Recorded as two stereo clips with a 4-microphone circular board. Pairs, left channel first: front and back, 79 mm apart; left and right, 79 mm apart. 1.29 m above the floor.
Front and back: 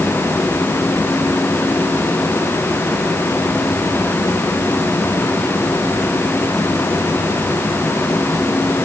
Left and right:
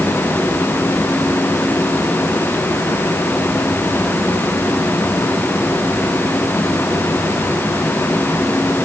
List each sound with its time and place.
Only background noise.